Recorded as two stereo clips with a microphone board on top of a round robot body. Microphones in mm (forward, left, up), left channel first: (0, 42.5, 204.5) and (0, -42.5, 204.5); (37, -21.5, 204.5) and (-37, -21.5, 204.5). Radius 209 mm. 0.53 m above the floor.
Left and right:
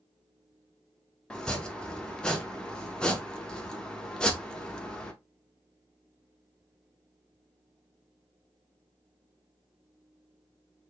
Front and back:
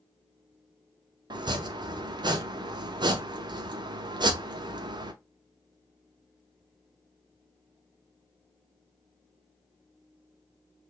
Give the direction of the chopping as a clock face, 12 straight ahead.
6 o'clock.